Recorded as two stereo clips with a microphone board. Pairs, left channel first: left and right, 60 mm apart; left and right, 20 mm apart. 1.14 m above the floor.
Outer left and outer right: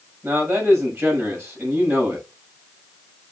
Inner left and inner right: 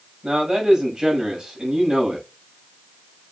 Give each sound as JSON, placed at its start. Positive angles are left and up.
{"t": 0.2, "sound": "a man speaking", "side_deg": -45, "distance_m": 6.0}